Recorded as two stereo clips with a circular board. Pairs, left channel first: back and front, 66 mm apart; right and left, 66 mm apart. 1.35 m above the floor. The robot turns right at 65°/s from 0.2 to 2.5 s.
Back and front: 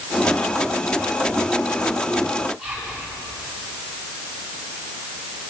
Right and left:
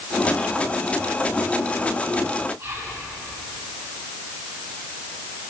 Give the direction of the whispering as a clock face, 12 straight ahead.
9 o'clock.